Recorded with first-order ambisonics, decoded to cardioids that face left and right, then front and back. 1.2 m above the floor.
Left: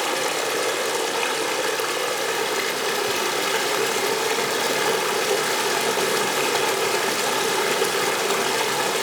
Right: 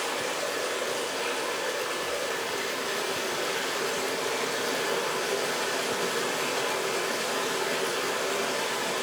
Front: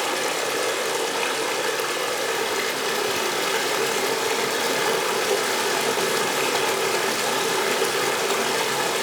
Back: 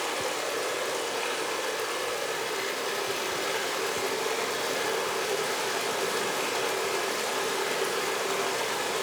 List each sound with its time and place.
0.0 s running water: 60° left, 1.7 m